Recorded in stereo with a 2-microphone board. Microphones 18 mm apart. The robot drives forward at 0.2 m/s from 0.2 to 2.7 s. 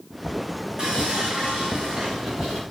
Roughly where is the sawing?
Right.